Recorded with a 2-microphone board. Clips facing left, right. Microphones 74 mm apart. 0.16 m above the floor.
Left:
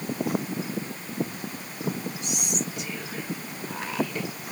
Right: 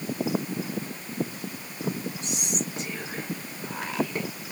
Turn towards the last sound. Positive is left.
turn(degrees=-30)  # may be behind; listen again after turning